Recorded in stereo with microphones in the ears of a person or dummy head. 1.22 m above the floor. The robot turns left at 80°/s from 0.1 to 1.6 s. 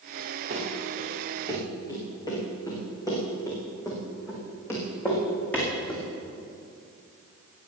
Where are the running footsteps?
50° right (ahead or behind), 6 m; by 6.0 s 10° left (ahead or behind), 5.5 m.